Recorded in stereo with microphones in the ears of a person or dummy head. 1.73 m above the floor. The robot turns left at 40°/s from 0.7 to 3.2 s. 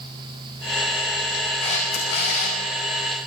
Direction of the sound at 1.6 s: 140° left.